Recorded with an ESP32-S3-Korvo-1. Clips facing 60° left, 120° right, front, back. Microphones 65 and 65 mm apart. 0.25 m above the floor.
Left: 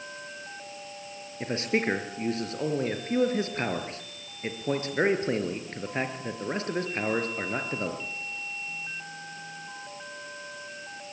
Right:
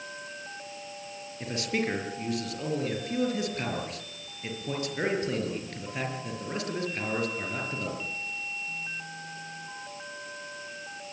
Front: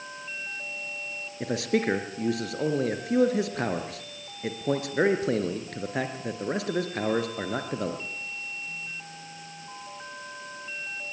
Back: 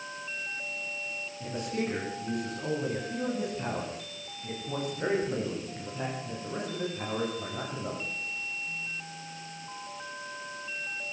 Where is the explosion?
No explosion in this recording.